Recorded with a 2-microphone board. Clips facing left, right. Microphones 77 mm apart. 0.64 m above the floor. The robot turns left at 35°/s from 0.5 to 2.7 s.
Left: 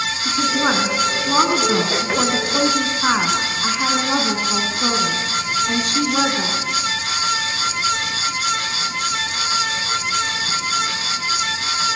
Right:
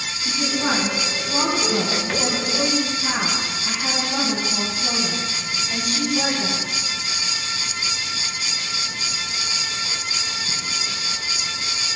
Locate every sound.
0.2 s a woman speaking: 145° left, 6 m; by 6.6 s 70° left, 6 m